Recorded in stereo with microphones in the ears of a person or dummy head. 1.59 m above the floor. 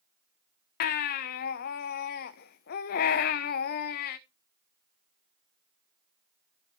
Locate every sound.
0.8 s a baby crying: 45° left (ahead or behind), 0.8 m